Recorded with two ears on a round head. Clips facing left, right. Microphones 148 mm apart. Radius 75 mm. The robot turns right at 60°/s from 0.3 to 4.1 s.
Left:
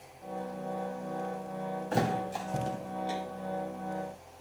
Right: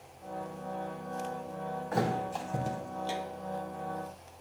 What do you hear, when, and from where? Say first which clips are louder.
1.9 s a thud: left 1 dB; 35° left (ahead or behind), 1.1 m; by 3.2 s 35° right (ahead or behind), 1.1 m